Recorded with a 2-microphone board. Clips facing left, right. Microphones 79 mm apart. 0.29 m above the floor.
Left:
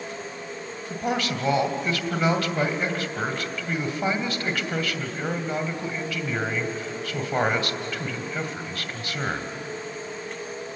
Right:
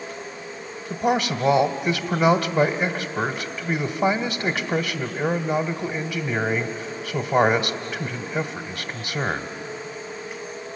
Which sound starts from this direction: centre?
A man speaking, at 0.9 s.